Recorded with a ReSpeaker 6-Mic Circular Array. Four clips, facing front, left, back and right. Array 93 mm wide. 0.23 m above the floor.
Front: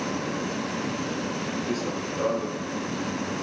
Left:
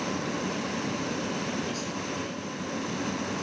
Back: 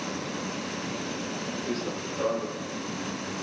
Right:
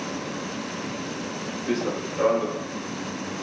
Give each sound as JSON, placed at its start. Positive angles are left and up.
{"t": 1.7, "sound": "running footsteps", "azimuth_deg": -85}